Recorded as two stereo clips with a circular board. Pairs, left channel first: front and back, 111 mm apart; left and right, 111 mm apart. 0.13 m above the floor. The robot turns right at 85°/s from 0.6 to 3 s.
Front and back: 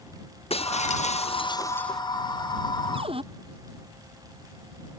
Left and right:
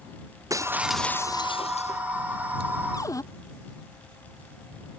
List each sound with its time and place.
0.5 s breaking glass: 30° right; by 2.0 s 90° left
2.9 s a cupboard door: 145° left; by 3.2 s 150° left